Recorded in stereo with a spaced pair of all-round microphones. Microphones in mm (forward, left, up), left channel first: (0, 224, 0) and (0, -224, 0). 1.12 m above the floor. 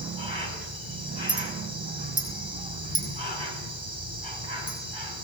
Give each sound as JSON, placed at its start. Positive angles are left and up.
{"t": 0.0, "sound": "an insect", "side_deg": -70, "distance_m": 7.5}
{"t": 1.3, "sound": "a clink", "side_deg": -55, "distance_m": 7.0}